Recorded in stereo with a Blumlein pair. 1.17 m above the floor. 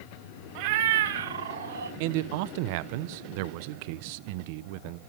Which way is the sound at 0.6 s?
45° right.